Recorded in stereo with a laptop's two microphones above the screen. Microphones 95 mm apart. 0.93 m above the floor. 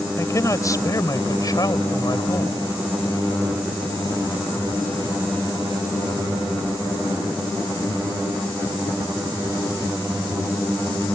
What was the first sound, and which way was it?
A man speaking, 30° left (ahead or behind).